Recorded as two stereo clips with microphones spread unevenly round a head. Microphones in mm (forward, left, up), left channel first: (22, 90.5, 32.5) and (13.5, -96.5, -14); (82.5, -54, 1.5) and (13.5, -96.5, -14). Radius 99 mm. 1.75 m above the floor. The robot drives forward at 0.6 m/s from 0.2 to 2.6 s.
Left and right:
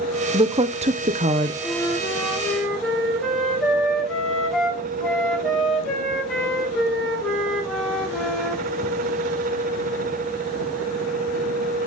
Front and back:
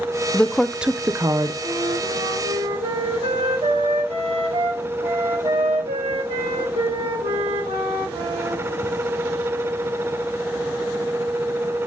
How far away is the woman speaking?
About 0.7 m.